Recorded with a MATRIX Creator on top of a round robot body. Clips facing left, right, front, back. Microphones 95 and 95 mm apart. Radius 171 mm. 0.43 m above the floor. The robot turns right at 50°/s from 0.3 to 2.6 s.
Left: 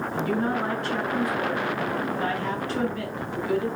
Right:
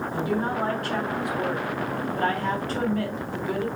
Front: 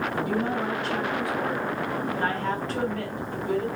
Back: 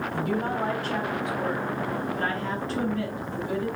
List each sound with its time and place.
0.1 s a woman speaking: 160° right, 3.5 m; by 3.7 s 45° right, 3.5 m